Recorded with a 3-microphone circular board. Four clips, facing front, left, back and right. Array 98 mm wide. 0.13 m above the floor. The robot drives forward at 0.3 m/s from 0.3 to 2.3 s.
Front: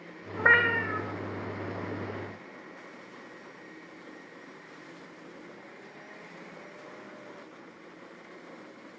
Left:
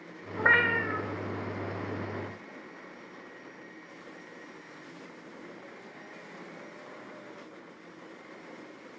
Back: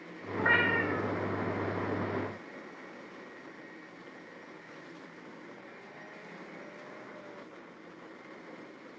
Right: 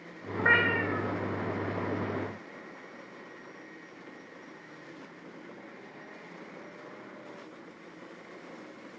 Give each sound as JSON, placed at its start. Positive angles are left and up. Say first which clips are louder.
{"t": 0.4, "sound": "a cat meowing", "louder": "even, front 3 dB", "azimuth_deg": 20, "distance_m": 0.6}